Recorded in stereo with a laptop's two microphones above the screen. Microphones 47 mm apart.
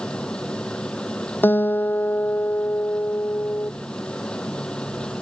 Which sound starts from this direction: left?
A guitar, at 1.4 s.